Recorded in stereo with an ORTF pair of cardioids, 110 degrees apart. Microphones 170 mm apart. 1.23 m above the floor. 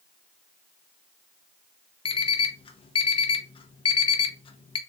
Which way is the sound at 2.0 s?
30° left.